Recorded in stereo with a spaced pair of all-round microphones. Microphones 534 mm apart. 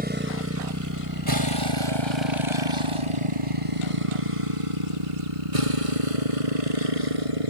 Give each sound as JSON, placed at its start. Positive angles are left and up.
{"t": 0.0, "sound": "a motorcycle", "side_deg": -15}